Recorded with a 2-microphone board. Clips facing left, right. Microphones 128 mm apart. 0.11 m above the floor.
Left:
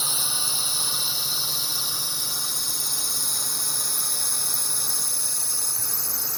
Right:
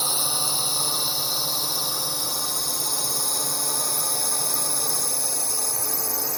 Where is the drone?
40° right (ahead or behind); by 6.4 s 65° right (ahead or behind).